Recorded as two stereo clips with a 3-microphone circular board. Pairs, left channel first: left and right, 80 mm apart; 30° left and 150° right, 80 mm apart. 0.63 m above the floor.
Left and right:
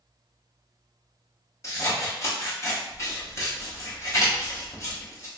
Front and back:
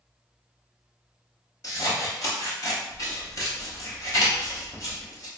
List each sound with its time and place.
1.6 s scissors: 55° left, 1.0 m